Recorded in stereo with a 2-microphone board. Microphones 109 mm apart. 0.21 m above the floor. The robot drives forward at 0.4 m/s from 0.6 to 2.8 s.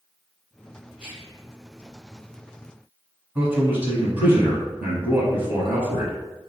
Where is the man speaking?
20° right (ahead or behind), 1.1 m.